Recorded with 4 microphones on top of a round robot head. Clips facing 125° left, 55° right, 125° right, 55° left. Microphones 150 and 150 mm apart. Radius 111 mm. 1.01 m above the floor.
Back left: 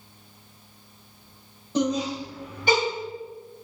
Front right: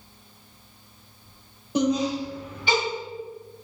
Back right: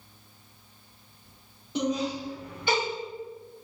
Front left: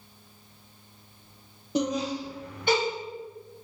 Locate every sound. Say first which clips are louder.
1.8 s laughter: front right 2 dB, front left 1 dB; 20° left, 0.9 m; by 2.8 s 90° left, 1.4 m